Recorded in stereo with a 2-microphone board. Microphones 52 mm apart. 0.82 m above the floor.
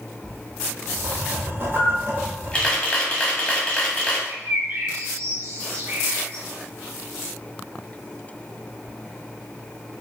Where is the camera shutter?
25° left (ahead or behind), 0.9 m.